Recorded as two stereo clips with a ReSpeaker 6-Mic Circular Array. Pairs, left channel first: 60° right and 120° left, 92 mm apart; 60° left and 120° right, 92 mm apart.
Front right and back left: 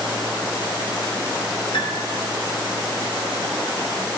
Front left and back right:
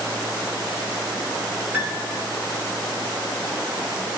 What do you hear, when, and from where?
1.7 s a piano: 55° right, 3 m